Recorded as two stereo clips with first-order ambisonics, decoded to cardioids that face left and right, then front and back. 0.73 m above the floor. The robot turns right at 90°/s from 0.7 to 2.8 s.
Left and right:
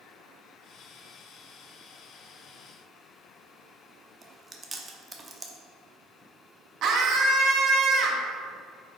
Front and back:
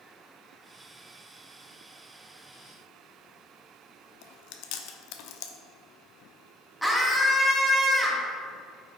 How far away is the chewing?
About 0.6 m.